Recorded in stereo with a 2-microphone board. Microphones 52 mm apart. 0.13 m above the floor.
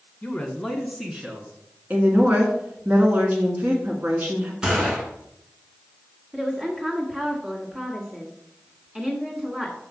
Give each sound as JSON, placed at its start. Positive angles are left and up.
{"t": 0.2, "sound": "a man speaking", "side_deg": 15, "distance_m": 1.1}
{"t": 1.9, "sound": "a woman speaking", "side_deg": -30, "distance_m": 1.4}
{"t": 4.6, "sound": "a gunshot", "side_deg": -15, "distance_m": 1.9}
{"t": 6.3, "sound": "a woman speaking", "side_deg": -20, "distance_m": 1.5}